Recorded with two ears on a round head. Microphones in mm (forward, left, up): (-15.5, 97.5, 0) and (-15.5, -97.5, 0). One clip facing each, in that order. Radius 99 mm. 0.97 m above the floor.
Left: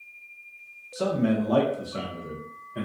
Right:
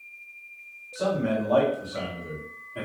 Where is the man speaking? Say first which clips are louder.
Left 2 dB; 45° left (ahead or behind), 1.0 m; by 2.8 s 10° left (ahead or behind), 0.8 m.